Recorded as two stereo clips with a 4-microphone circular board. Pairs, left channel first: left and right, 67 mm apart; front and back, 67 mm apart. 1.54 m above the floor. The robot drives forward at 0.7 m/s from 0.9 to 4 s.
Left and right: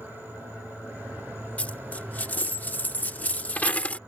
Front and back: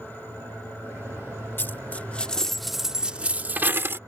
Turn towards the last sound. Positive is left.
turn(degrees=150)